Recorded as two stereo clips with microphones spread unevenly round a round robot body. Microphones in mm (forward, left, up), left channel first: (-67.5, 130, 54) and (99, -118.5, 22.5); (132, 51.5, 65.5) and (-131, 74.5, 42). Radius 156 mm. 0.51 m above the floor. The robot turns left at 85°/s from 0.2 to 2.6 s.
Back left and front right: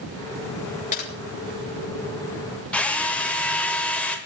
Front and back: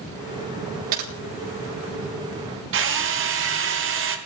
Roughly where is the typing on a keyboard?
Behind.